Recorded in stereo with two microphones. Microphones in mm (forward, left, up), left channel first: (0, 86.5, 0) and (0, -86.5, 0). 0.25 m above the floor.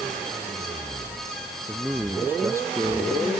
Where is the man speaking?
5° right (ahead or behind); by 3.3 s 25° right (ahead or behind).